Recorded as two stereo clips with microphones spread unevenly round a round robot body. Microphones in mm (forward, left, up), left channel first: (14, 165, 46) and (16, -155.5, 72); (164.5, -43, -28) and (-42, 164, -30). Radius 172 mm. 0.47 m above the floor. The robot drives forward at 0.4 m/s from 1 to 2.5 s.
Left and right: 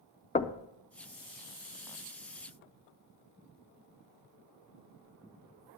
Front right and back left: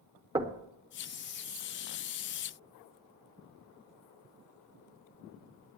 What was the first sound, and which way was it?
Knocking, 85° left.